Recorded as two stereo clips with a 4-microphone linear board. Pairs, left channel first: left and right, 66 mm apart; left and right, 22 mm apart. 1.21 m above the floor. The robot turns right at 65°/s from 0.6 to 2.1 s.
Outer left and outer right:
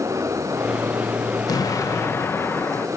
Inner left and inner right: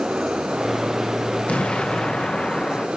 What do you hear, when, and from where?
1.5 s an explosion: 100° left, 0.8 m; by 2.9 s 140° left, 0.8 m